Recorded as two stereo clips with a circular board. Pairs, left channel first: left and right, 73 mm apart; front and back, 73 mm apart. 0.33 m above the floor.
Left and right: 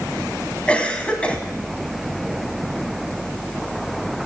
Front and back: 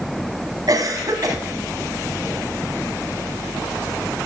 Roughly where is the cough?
Behind.